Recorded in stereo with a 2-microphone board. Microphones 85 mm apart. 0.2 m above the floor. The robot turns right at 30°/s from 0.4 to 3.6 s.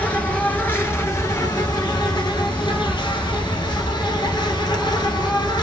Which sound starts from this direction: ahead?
An insect, at 0.0 s.